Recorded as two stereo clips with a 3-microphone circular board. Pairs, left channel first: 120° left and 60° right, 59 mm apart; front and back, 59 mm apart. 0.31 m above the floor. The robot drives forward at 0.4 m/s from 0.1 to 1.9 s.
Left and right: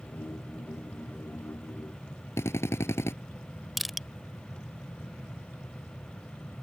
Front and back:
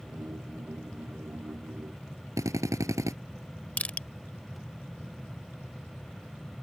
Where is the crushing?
30° left.